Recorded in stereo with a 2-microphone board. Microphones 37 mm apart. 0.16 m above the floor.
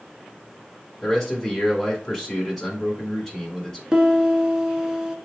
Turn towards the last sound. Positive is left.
turn(degrees=-15)  # may be behind; listen again after turning